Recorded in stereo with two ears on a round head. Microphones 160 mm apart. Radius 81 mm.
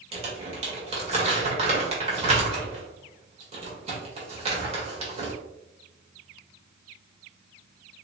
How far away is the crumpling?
About 1.8 m.